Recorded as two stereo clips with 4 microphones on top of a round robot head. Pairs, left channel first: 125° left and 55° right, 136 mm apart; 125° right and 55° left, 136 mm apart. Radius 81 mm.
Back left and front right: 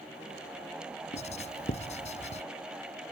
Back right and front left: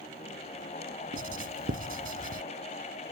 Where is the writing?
85° left.